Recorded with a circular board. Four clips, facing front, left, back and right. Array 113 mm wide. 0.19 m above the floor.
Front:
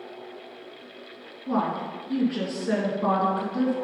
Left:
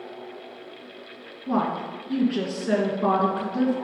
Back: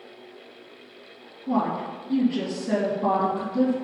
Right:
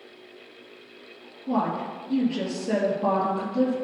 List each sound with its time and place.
1.5 s a woman speaking: 60° left, 2.5 m